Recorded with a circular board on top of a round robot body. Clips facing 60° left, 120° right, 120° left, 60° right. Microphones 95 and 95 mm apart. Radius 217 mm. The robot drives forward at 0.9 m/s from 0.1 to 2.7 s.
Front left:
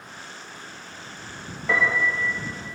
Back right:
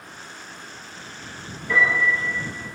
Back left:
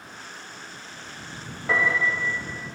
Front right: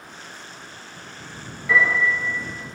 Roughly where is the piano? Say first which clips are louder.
Back right 2 dB, front right 4 dB; left.